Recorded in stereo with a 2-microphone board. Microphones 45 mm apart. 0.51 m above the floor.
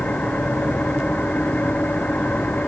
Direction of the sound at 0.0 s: 35° left (ahead or behind).